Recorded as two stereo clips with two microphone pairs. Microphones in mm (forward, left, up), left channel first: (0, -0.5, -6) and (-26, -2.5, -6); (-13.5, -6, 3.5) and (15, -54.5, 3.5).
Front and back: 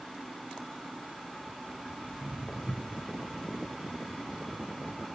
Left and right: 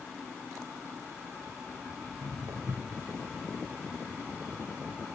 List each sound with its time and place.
2.0 s footsteps: 45° right, 5.5 m